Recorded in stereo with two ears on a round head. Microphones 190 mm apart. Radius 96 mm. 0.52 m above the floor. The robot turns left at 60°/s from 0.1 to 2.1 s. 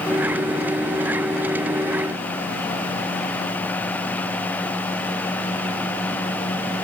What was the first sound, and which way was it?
Only background noise.